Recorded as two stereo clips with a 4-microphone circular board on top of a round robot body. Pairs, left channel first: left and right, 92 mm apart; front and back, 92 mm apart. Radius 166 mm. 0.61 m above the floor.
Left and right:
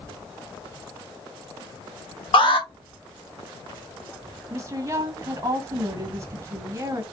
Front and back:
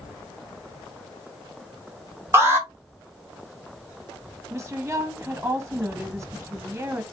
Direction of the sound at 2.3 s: 115° left.